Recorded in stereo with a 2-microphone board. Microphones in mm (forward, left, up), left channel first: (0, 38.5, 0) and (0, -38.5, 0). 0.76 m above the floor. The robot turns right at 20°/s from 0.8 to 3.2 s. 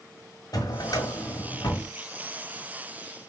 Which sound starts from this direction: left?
A drawer, at 0.5 s.